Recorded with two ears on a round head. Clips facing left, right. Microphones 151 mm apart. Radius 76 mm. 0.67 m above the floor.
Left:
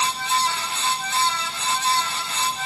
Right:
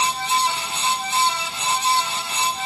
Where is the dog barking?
No dog barking in this recording.